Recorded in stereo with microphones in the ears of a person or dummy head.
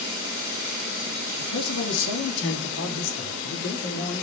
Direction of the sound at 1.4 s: 80° left.